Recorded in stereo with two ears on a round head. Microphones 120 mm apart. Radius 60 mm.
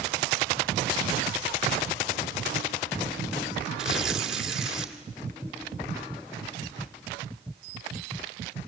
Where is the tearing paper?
5° right (ahead or behind), 2 m.